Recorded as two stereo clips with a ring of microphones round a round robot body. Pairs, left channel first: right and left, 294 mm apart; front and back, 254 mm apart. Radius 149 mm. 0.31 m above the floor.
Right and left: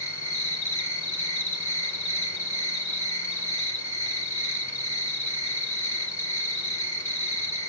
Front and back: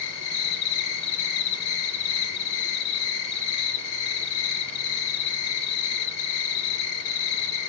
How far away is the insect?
About 1.0 m.